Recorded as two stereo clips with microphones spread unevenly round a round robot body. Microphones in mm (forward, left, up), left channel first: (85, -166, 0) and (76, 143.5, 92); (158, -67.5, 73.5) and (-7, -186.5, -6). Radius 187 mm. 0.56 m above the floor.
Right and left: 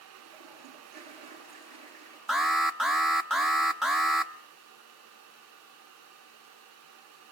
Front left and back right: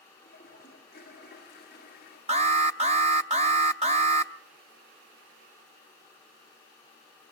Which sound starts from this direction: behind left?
A toilet flushing, at 0.2 s.